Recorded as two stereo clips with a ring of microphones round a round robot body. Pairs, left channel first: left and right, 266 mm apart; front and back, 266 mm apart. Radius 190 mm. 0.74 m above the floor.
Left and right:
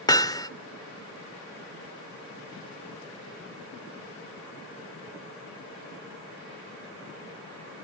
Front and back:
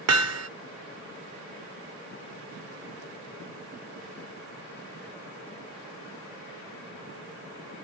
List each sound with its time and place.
0.1 s hammering: 165° left